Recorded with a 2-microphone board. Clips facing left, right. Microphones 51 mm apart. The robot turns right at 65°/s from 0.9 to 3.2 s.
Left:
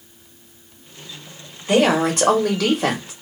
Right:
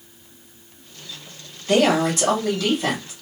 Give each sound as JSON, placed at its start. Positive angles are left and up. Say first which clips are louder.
{"t": 1.7, "sound": "a woman speaking", "louder": "left 1 dB", "azimuth_deg": 15, "distance_m": 1.3}